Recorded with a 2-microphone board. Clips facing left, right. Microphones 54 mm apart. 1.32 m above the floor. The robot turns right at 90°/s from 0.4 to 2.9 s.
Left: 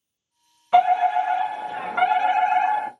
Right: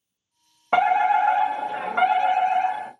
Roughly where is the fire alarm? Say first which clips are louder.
Left 1 dB; right.